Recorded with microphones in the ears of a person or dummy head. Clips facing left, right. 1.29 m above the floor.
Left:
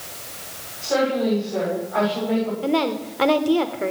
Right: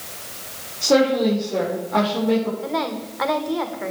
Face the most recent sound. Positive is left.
turn(degrees=35)  # may be behind; listen again after turning